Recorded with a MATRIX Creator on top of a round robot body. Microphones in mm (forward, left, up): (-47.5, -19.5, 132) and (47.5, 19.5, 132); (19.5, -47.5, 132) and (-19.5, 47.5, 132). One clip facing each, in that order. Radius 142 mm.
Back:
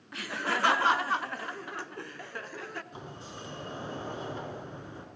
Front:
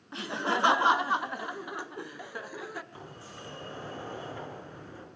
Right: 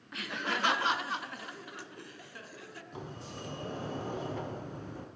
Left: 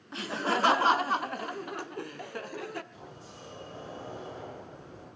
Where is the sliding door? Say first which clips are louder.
Back 2 dB, right 4 dB; 90° right, 6.5 m.